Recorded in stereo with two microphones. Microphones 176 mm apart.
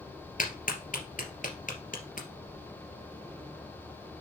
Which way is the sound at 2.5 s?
5° right (ahead or behind).